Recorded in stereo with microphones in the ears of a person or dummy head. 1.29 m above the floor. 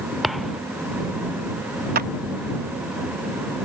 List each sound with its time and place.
0.2 s a thud: centre (ahead or behind)
1.9 s a clap: 45° right (ahead or behind)